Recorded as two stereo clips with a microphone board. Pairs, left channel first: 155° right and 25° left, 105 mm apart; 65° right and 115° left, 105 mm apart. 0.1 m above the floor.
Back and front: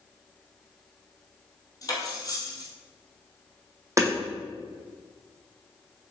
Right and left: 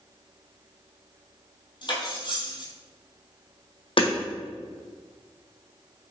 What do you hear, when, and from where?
1.8 s cutlery clinking: 105° right, 1.8 m
4.0 s hammering: 40° right, 1.9 m